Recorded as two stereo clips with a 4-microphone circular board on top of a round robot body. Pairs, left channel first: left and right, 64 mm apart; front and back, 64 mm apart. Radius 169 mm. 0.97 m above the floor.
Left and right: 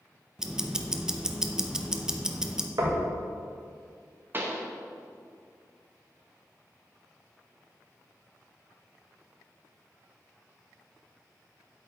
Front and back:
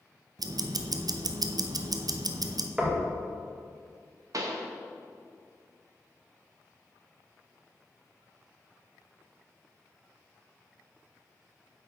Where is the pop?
150° right, 0.9 m.